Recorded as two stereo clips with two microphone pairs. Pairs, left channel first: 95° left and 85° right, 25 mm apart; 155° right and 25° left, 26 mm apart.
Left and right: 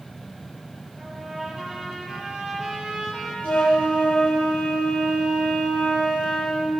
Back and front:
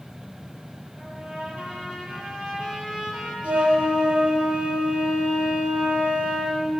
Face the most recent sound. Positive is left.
turn(degrees=55)